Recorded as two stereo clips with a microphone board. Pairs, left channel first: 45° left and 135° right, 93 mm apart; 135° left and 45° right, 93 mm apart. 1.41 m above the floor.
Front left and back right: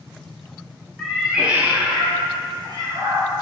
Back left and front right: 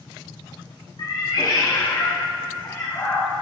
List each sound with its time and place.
1.0 s a cat meowing: 125° left, 0.9 m; by 3.3 s 165° right, 1.7 m